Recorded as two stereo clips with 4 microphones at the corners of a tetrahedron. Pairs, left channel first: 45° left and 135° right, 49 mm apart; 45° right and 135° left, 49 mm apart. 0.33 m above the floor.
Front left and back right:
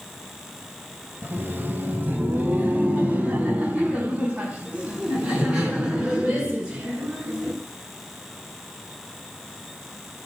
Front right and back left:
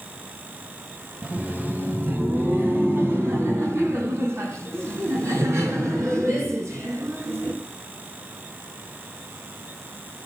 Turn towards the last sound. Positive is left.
turn(degrees=150)